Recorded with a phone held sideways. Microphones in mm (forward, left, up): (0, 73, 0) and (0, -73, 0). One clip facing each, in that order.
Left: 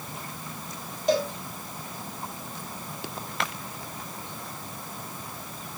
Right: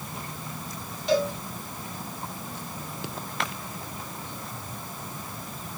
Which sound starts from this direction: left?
A cowbell, at 1.1 s.